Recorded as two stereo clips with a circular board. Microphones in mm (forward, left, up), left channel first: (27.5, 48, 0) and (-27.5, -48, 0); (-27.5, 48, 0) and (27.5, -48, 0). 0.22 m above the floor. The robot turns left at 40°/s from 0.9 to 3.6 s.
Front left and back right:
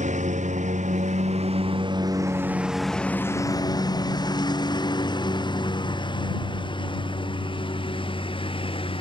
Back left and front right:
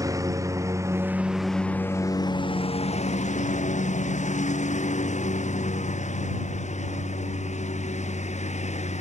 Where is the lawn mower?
120° right; by 9.0 s 100° left.